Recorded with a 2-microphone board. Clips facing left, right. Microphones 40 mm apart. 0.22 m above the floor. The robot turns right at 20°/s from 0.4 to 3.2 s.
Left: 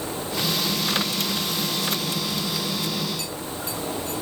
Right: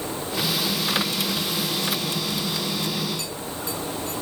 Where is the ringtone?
No ringtone in this recording.